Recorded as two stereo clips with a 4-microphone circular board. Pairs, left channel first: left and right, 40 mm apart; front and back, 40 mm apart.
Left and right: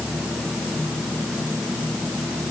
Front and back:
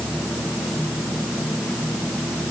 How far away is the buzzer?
I don't hear a buzzer.